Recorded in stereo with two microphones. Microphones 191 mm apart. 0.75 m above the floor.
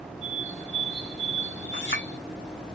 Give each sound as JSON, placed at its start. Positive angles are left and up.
{"t": 0.2, "sound": "a bird", "side_deg": 75, "distance_m": 2.0}
{"t": 1.7, "sound": "a clink", "side_deg": 75, "distance_m": 1.8}